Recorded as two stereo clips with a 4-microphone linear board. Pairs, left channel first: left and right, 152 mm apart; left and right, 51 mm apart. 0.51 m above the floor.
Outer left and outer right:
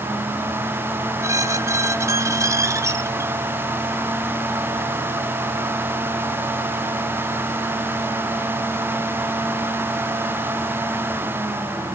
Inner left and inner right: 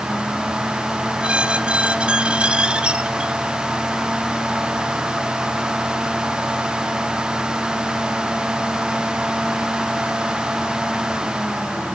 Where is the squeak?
20° right (ahead or behind), 0.7 m.